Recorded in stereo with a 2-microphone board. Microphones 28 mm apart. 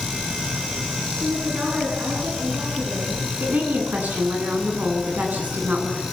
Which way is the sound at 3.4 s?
85° right.